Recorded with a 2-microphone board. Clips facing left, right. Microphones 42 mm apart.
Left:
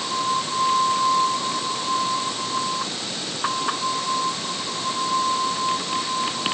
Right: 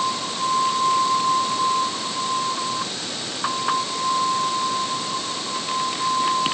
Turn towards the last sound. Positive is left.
No sound to turn to.